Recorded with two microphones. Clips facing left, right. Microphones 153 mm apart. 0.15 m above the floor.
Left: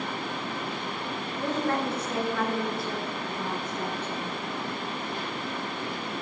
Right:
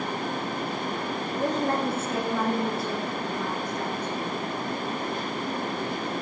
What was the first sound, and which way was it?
A woman speaking, 40° right (ahead or behind).